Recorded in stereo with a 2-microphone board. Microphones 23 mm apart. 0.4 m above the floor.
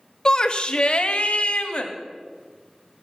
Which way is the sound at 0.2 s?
35° left (ahead or behind).